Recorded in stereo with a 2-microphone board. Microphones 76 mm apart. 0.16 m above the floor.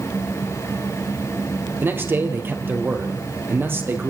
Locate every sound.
1.8 s a man speaking: 30° right (ahead or behind), 3.5 m